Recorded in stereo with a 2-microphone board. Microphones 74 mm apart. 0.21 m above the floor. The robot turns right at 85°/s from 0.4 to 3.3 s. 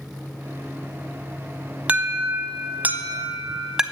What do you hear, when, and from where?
1.9 s an alarm: 20° right (ahead or behind), 0.8 m; by 3.8 s 10° right (ahead or behind), 0.8 m